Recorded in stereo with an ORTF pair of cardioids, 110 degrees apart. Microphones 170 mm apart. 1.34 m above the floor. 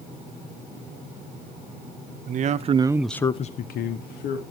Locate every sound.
2.3 s a man speaking: 50° right, 1.3 m; by 4.4 s 80° left, 1.7 m